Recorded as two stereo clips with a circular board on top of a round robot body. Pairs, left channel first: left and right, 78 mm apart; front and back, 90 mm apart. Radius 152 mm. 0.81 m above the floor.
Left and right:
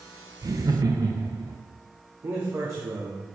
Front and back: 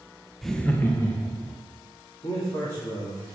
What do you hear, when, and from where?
0.4 s laughter: 90° right, 1.0 m; by 1.6 s 45° right, 1.8 m
2.2 s a man speaking: 40° right, 2 m